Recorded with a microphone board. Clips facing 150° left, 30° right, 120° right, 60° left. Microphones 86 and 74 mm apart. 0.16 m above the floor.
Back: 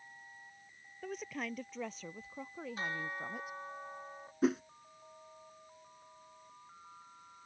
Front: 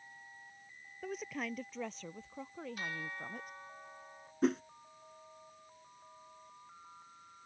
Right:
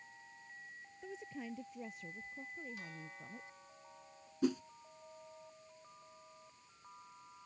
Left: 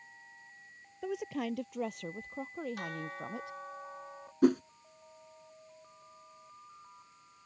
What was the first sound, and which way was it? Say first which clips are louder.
A woman speaking: front 1 dB, left 11 dB; 55° left.